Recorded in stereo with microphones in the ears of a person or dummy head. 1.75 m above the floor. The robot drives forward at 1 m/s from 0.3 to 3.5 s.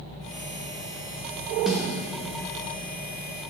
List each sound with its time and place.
1.7 s a snare drum: 5° left (ahead or behind), 0.9 m